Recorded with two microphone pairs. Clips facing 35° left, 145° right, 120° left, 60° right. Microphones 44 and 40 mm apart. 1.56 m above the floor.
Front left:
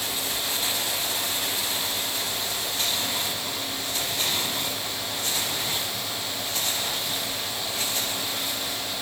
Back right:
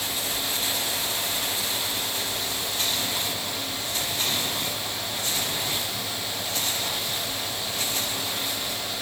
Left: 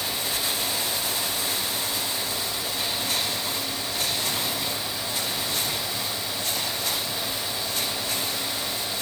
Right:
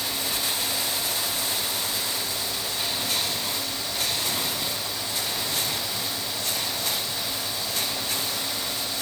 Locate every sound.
Only background noise.